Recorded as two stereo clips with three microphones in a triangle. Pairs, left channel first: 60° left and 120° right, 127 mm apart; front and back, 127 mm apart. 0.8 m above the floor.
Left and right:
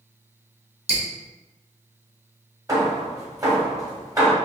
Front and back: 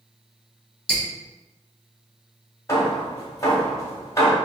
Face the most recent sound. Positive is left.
turn(degrees=-60)